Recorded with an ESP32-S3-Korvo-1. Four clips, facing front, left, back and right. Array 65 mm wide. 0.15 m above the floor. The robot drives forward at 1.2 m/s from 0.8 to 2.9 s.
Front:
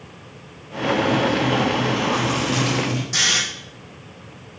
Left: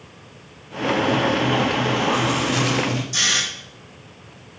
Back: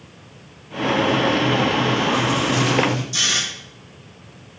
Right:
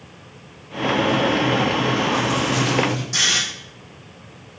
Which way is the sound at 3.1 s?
30° right.